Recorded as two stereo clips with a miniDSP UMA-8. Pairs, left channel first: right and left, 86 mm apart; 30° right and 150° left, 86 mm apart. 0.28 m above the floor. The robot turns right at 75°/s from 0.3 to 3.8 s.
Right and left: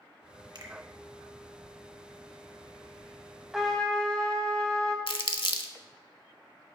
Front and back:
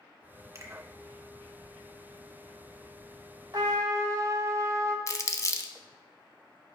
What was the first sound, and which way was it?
A finger snap, 95° left.